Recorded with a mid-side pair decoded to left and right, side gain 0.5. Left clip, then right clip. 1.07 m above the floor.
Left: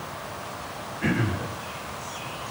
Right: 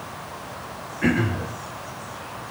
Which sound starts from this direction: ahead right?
Throat clearing, at 1.0 s.